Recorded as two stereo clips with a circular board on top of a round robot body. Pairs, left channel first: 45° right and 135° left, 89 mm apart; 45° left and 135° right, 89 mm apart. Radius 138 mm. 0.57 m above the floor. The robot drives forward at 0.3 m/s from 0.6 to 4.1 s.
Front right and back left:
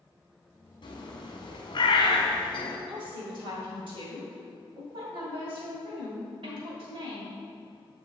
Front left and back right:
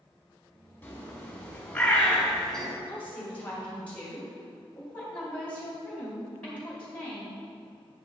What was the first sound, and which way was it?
A bird, 20° right.